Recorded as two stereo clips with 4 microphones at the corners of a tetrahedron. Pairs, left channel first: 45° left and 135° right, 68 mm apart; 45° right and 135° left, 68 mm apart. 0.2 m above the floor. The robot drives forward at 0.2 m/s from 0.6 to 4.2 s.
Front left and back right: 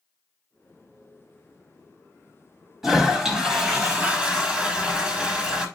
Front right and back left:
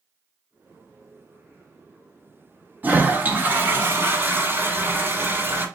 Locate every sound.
2.8 s a toilet flushing: 150° left, 1.0 m; by 5.7 s 160° left, 1.1 m